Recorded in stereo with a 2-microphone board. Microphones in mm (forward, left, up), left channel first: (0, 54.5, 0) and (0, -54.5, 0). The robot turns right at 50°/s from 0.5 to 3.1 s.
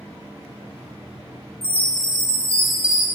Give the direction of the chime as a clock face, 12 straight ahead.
8 o'clock.